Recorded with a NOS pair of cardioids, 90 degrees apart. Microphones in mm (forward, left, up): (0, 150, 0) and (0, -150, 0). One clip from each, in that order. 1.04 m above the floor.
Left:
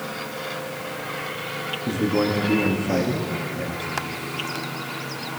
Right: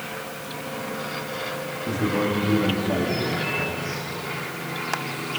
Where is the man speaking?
35° left, 2 m.